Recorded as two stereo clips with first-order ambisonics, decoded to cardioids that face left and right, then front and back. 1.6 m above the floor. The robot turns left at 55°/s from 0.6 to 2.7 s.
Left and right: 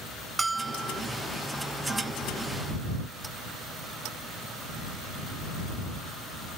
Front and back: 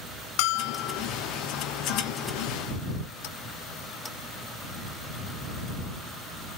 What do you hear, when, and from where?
0.4 s a bell: 10° right; by 1.0 s 35° right